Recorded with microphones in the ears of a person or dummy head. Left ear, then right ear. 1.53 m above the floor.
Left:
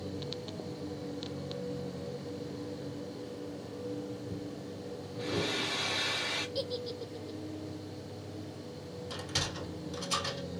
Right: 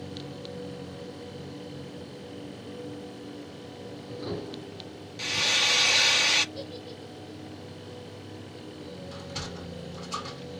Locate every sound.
5.2 s frying: 70° right (ahead or behind), 0.6 m
6.5 s a giggle: 60° left (ahead or behind), 1.2 m
9.1 s a sliding door: 60° left (ahead or behind), 2.5 m